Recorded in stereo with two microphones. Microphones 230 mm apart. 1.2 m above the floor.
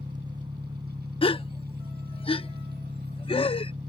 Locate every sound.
0.0 s an engine running: 20° right (ahead or behind)
1.2 s a gasp: 25° left (ahead or behind)